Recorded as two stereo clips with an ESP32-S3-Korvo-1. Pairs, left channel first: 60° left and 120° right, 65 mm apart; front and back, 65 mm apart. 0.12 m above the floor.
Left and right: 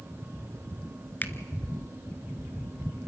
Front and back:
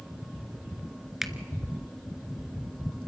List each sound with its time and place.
1.2 s a finger snap: 100° left, 1.1 m